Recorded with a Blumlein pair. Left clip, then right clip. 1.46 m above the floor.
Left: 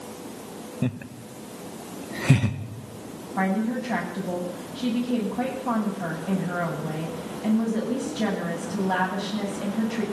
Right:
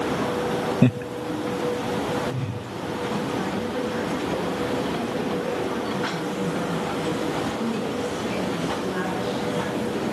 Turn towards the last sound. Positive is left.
turn(degrees=50)